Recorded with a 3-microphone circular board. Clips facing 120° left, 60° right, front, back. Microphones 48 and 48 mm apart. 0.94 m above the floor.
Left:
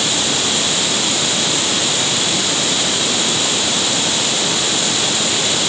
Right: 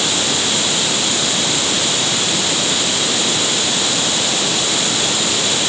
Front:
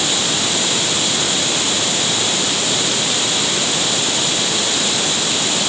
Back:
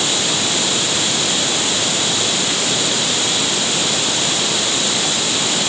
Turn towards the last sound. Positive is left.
No sound to turn to.